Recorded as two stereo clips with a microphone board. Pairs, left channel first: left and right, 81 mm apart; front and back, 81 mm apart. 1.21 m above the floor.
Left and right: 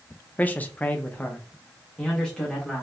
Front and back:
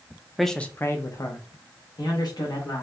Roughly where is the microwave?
No microwave in this recording.